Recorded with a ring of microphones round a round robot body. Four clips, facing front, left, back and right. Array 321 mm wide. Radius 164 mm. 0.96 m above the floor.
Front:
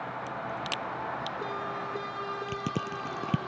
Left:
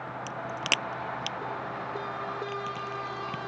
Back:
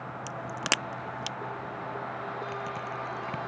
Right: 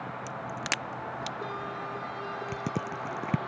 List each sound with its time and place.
0.3 s a crack: 165° left
2.5 s crushing: 45° right